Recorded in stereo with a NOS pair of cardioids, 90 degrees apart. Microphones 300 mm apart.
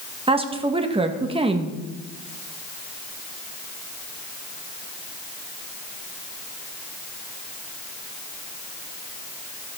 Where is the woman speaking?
20° right, 1.5 m.